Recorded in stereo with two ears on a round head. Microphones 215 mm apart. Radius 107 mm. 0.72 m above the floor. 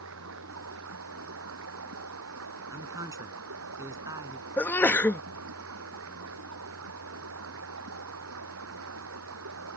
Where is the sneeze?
5° left (ahead or behind).